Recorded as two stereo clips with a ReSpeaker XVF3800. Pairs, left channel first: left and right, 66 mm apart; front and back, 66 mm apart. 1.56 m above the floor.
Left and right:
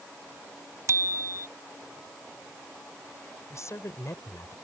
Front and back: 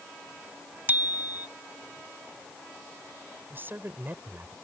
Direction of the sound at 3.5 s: 125° left.